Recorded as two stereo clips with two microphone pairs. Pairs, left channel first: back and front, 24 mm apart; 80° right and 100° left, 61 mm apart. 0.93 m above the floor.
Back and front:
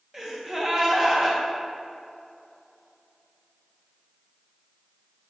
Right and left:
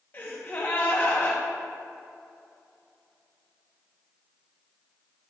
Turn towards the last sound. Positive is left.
turn(degrees=-60)